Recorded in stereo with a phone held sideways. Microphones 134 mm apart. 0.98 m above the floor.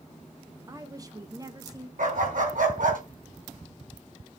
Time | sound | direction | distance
0.7 | a woman speaking | 25° right (ahead or behind) | 1.1 m
2.0 | a dog barking | 85° right | 4 m